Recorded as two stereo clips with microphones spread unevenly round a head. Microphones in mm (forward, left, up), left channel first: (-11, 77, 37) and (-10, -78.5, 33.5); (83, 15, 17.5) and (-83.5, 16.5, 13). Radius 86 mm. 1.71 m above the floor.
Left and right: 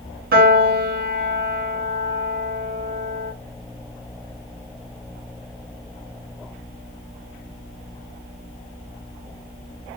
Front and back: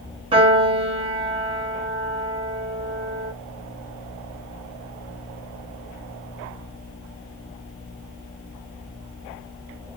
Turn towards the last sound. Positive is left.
turn(degrees=-120)